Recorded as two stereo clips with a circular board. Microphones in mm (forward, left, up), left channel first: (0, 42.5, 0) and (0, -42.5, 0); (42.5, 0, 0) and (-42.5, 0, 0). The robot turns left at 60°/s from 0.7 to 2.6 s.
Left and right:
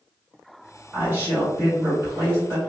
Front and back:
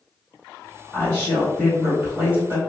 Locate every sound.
0.9 s a woman speaking: 40° right, 1.7 m; by 2.6 s 140° right, 1.7 m